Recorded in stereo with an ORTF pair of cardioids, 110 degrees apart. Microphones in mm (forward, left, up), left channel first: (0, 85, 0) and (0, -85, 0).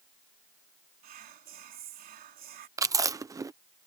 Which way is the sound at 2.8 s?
20° right.